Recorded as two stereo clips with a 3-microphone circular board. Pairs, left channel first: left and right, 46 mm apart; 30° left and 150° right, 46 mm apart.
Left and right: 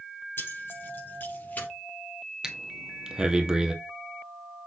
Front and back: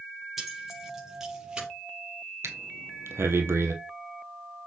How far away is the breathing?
About 1.6 m.